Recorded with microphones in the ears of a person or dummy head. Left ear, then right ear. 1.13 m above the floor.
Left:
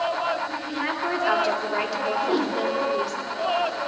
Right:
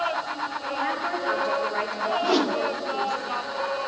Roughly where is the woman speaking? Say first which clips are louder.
Even; left.